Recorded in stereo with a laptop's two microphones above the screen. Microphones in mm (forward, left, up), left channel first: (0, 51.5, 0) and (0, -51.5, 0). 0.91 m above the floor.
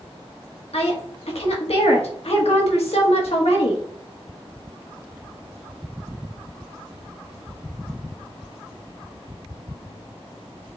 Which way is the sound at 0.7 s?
70° left (ahead or behind).